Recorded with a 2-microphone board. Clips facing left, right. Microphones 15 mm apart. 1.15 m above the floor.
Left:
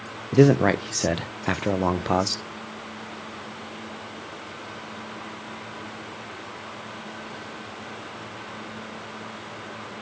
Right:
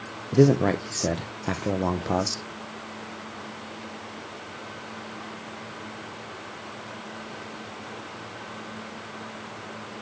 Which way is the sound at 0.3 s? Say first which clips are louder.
Left 2 dB; 50° left (ahead or behind).